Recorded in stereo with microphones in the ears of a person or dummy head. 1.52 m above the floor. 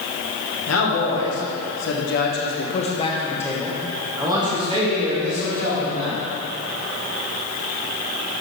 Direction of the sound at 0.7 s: 75° left (ahead or behind).